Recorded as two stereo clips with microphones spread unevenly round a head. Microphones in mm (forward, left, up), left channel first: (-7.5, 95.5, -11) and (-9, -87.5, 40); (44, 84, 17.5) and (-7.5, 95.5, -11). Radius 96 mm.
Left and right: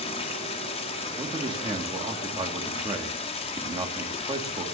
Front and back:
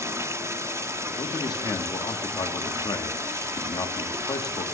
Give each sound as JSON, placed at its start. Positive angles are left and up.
{"t": 0.0, "sound": "running water", "azimuth_deg": 145, "distance_m": 2.0}
{"t": 1.2, "sound": "a man speaking", "azimuth_deg": -20, "distance_m": 2.0}